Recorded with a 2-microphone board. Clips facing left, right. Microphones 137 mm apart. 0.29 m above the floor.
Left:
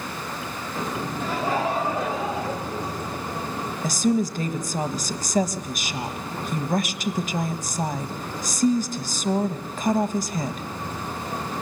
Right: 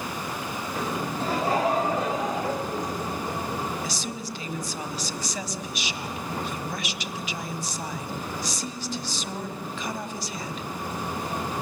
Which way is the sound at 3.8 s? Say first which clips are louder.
Left 11 dB; 45° left (ahead or behind).